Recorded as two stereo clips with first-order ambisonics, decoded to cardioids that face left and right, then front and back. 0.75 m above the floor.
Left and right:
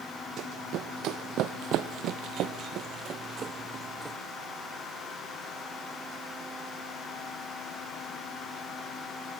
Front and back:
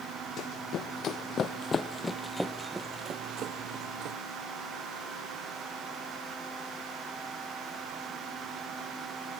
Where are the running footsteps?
45° right, 1.7 m; by 4.2 s 165° right, 1.2 m.